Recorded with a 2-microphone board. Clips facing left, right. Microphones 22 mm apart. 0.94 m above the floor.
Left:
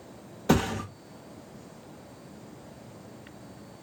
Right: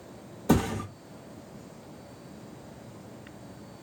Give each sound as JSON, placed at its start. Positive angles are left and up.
{"t": 0.5, "sound": "a thud", "side_deg": 30, "distance_m": 1.0}